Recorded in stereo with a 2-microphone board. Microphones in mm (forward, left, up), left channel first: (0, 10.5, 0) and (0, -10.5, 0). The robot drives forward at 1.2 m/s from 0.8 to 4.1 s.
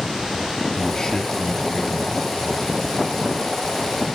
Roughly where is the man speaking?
Left.